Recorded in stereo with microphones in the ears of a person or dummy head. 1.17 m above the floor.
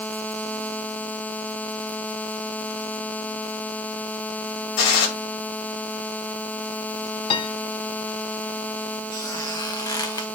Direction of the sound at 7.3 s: 25° left (ahead or behind).